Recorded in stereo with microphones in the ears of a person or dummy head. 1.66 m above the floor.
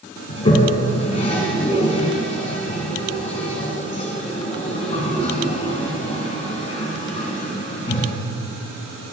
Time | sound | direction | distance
0.3 | a toilet flushing | 30° left (ahead or behind) | 1.8 m